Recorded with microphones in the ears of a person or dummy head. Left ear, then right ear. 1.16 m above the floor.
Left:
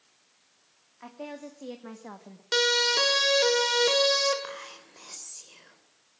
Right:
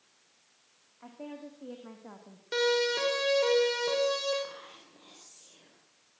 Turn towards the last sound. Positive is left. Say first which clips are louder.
# left 5 dB
turn(degrees=75)  # may be behind; listen again after turning